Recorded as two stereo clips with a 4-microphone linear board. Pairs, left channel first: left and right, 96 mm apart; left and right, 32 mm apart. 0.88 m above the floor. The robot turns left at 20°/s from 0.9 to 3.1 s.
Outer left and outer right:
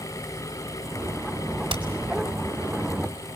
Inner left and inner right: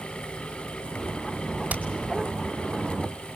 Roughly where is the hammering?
Right.